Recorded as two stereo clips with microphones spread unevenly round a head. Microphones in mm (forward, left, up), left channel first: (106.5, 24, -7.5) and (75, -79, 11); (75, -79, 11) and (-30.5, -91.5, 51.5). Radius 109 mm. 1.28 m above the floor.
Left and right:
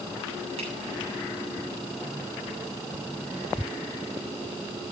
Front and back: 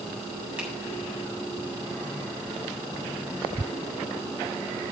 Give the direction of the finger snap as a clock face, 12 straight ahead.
3 o'clock.